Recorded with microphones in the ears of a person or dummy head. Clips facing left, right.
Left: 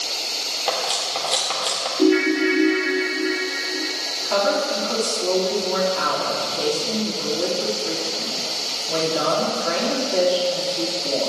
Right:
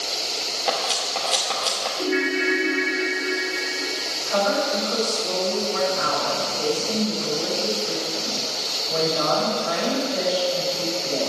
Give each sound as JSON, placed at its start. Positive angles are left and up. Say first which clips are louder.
{"t": 0.7, "sound": "cutlery clinking", "louder": "left 1 dB", "side_deg": 0, "distance_m": 2.5}
{"t": 2.0, "sound": "a ringtone", "louder": "left 8 dB", "side_deg": 50, "distance_m": 2.0}
{"t": 4.2, "sound": "a woman speaking", "louder": "left 1 dB", "side_deg": 80, "distance_m": 5.0}